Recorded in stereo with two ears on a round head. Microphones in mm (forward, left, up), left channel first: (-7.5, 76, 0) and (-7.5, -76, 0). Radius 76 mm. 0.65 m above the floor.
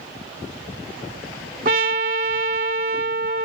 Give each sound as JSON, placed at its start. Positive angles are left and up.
{"t": 1.6, "sound": "a trumpet", "side_deg": -55}